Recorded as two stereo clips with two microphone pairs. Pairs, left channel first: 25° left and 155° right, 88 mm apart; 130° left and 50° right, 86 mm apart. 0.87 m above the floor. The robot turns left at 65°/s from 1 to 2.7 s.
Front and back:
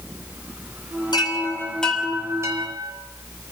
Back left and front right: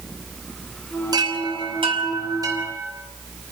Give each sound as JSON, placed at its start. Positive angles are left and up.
{"t": 1.1, "sound": "a chime", "azimuth_deg": -10, "distance_m": 5.0}